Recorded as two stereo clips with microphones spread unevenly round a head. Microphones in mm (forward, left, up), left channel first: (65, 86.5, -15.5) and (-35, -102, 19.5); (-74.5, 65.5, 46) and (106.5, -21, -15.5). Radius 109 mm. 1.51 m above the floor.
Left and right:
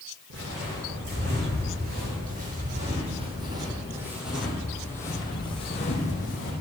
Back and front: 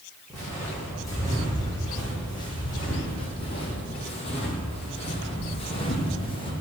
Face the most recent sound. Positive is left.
turn(degrees=110)